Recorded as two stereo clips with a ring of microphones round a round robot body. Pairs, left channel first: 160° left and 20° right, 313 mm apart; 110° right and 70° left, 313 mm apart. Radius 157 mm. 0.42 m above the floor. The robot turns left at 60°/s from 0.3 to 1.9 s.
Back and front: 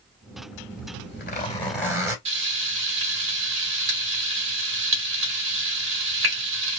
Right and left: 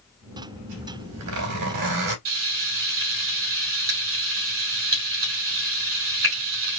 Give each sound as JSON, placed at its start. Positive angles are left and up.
{"t": 0.7, "sound": "a zipper", "azimuth_deg": 130, "distance_m": 3.0}
{"t": 2.2, "sound": "frying", "azimuth_deg": 25, "distance_m": 3.0}